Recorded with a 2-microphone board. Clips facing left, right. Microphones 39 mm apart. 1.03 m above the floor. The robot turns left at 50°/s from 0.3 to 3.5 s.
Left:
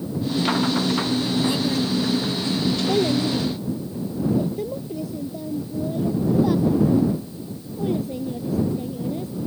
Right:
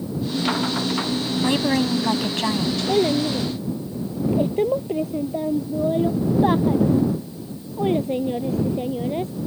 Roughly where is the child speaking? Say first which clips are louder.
Right 3 dB; ahead.